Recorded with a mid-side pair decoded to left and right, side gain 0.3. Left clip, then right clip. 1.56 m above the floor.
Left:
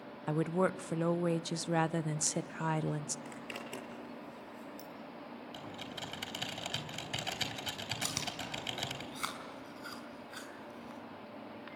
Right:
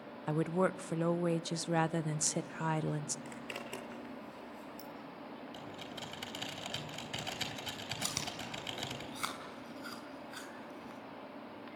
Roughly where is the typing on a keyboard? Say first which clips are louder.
Left 3 dB; ahead left.